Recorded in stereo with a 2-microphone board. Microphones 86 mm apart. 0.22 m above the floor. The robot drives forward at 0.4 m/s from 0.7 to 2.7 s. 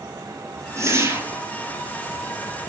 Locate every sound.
0.8 s a whoosh: 35° right (ahead or behind), 1.0 m; by 1.4 s 30° right (ahead or behind), 1.3 m